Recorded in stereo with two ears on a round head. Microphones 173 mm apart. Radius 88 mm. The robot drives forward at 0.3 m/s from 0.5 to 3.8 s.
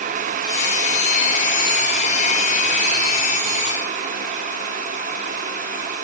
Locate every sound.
Only background noise.